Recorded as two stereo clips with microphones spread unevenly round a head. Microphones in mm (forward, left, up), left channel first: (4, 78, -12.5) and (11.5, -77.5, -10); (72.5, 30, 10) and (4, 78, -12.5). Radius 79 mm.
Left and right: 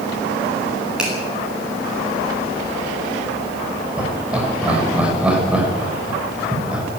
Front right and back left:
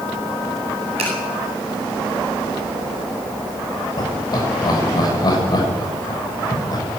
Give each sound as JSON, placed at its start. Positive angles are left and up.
{"t": 1.0, "sound": "a finger snap", "azimuth_deg": -175, "distance_m": 8.5}
{"t": 4.0, "sound": "laughter", "azimuth_deg": -5, "distance_m": 6.5}